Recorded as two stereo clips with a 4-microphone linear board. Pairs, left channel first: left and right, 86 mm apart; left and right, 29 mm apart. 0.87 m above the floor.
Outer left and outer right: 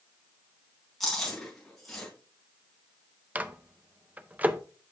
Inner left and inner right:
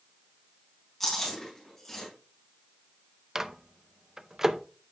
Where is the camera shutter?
I don't hear a camera shutter.